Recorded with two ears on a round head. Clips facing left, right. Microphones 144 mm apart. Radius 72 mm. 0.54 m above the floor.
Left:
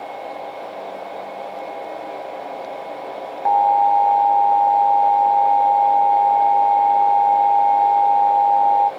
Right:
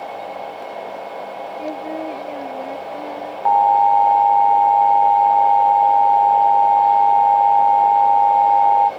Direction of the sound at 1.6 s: 70° right (ahead or behind).